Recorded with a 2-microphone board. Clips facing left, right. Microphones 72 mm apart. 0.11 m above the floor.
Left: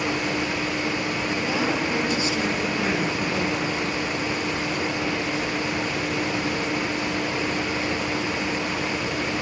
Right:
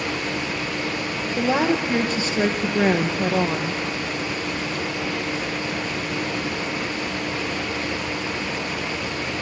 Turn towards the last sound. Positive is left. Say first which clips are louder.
# right 7 dB
turn(degrees=-40)  # may be behind; listen again after turning